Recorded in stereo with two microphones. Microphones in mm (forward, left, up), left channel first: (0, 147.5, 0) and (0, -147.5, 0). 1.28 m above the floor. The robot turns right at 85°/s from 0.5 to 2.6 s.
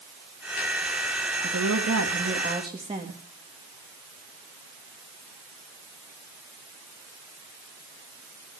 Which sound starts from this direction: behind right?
A woman speaking, at 1.4 s.